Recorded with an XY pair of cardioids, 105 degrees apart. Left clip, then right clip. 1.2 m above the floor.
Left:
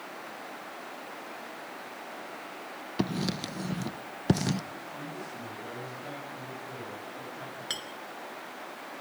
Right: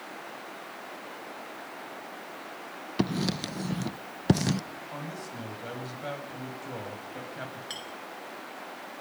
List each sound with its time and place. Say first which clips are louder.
3.0 s writing: right 2 dB; 15° right, 0.5 m
4.9 s a man speaking: right 1 dB; 60° right, 7.5 m
7.7 s a clink: left 6 dB; 40° left, 3 m